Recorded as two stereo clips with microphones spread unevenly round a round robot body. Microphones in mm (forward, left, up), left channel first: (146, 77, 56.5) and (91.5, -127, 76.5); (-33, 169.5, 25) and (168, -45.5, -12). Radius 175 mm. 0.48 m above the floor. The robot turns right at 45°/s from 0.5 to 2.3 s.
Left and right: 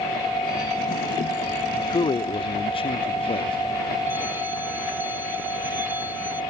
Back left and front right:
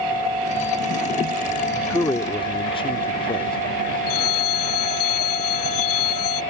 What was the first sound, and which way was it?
A man speaking, 45° left.